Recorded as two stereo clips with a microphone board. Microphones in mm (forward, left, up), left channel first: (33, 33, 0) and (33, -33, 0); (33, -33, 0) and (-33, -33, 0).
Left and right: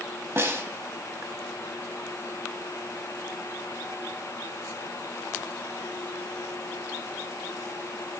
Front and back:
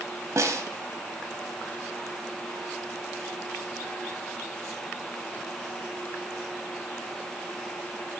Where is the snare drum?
140° right, 0.8 m.